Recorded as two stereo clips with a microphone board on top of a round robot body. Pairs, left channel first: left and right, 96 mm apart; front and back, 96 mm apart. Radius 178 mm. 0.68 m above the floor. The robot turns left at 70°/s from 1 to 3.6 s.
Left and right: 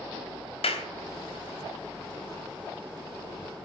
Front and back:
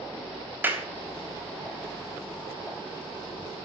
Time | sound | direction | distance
0.6 | a clap | 110° left | 3.5 m